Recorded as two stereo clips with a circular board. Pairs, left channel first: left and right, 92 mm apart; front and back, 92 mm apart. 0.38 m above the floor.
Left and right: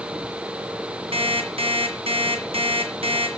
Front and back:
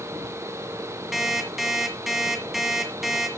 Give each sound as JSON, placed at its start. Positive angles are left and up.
{"t": 1.1, "sound": "an alarm clock", "azimuth_deg": -90, "distance_m": 1.9}